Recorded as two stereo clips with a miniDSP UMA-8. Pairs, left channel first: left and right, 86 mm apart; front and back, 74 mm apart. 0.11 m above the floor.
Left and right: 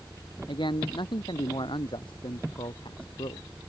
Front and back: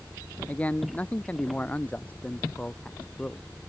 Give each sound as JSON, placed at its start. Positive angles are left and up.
{"t": 0.5, "sound": "a man speaking", "azimuth_deg": 70}